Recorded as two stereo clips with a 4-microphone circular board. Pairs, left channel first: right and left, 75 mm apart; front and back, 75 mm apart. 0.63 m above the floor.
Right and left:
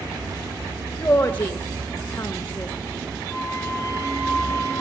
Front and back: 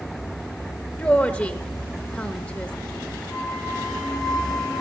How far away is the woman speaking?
About 0.6 m.